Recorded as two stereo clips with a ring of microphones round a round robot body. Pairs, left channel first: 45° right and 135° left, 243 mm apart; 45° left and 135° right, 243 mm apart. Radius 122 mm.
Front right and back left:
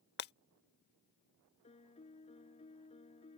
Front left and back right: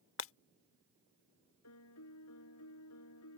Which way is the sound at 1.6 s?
20° left.